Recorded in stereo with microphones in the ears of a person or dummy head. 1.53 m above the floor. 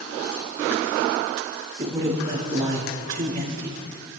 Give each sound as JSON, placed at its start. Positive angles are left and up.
{"t": 1.8, "sound": "a man speaking", "side_deg": -20, "distance_m": 5.5}